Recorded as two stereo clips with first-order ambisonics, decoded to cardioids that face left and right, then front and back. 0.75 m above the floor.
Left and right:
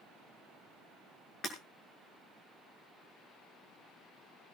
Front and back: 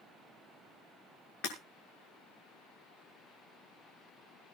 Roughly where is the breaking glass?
Ahead left.